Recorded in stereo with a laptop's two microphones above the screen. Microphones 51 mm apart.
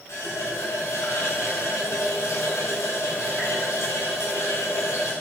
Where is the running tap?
85° left, 3.5 m.